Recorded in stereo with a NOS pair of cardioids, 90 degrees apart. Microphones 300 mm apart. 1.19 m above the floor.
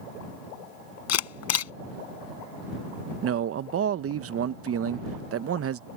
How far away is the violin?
No violin in this recording.